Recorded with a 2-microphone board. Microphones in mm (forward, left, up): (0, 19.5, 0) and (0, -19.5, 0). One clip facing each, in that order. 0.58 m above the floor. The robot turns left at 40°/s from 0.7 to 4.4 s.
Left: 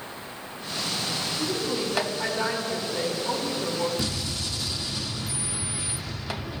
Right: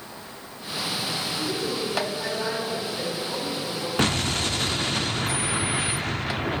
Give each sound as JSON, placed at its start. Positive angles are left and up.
{"t": 1.4, "sound": "a woman speaking", "azimuth_deg": -170, "distance_m": 5.0}
{"t": 4.0, "sound": "an explosion", "side_deg": -55, "distance_m": 0.5}